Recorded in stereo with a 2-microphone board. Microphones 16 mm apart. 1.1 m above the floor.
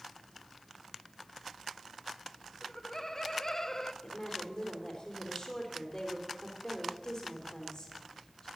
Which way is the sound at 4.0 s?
40° left (ahead or behind).